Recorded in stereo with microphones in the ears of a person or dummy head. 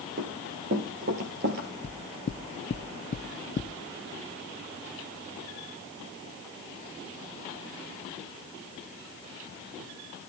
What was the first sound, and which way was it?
Running footsteps, 50° right (ahead or behind).